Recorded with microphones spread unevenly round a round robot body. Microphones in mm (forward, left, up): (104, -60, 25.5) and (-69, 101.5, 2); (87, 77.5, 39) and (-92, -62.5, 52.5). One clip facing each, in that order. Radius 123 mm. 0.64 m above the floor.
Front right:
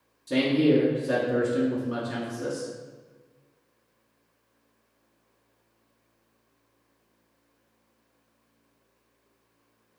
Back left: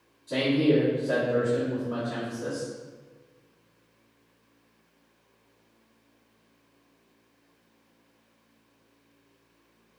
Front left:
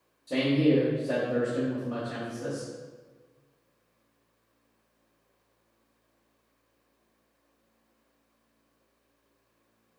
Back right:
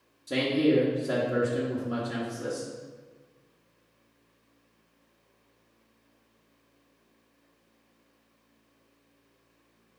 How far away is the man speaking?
About 0.9 m.